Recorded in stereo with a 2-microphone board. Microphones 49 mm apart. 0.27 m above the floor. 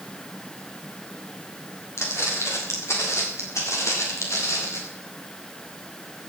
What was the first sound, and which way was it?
Footsteps, 65° left (ahead or behind).